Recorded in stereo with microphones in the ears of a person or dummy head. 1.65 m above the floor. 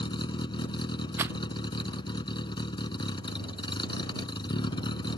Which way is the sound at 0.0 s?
25° left (ahead or behind).